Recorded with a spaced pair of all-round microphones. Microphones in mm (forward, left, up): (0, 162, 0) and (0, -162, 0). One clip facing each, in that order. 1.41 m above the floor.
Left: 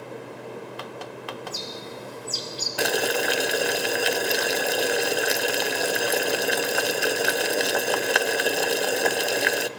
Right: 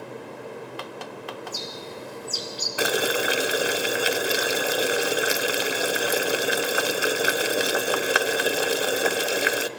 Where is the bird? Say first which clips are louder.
Even; 25° left (ahead or behind), 4.5 m.